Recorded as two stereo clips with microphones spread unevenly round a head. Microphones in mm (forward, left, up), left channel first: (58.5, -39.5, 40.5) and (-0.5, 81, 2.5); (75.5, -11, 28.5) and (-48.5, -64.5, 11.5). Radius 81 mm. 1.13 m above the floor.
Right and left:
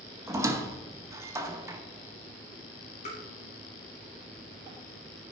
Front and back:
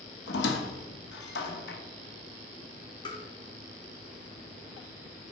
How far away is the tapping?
About 1.7 m.